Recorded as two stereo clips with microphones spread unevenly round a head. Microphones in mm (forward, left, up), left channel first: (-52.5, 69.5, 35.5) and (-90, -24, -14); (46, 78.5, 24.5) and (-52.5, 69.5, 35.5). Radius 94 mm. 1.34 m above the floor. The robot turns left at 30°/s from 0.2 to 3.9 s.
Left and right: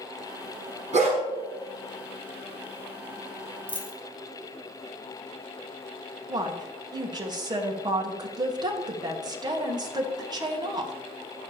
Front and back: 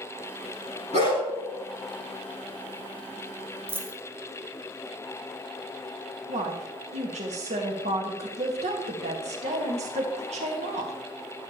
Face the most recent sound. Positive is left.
turn(degrees=-155)